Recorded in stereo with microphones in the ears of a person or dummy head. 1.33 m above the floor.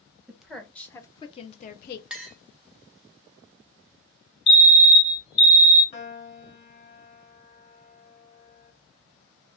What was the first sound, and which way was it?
A woman speaking, 10° right (ahead or behind).